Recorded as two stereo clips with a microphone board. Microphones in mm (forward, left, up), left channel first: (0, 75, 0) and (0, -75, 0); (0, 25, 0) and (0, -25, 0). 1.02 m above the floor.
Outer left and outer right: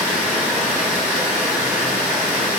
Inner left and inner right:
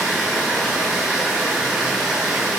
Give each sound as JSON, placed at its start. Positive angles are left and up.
{"t": 0.0, "sound": "running water", "side_deg": -5, "distance_m": 1.4}